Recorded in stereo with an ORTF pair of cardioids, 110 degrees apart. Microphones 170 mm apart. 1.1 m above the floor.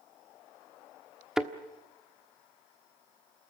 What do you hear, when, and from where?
1.4 s a thud: 5° right, 1.2 m